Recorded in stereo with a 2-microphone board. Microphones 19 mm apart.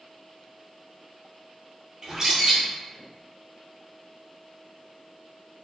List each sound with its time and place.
2.0 s a bird: 25° right (ahead or behind), 2.0 m